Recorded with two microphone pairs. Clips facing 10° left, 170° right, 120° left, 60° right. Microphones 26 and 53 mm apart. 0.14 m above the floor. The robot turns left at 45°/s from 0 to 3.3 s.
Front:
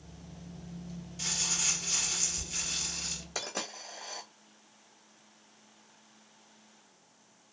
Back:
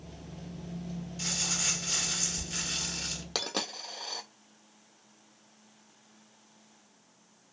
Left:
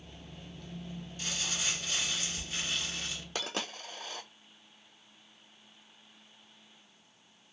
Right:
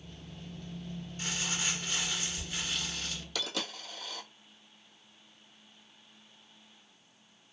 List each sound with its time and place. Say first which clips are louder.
1.2 s crumpling: even, right 1 dB; 80° right, 1.9 m; by 3.2 s 170° right, 1.9 m
3.4 s a dropped coin: back 6 dB, even; 170° left, 1.1 m